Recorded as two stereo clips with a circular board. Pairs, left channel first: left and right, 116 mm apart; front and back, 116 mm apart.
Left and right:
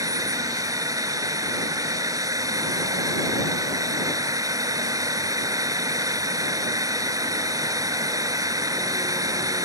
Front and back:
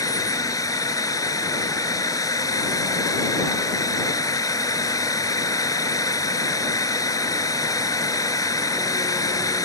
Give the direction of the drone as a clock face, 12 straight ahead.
1 o'clock.